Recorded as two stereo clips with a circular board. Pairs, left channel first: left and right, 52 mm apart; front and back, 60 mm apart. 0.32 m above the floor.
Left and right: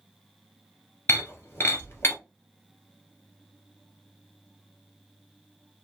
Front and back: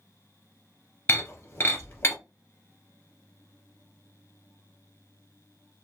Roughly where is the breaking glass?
Ahead left.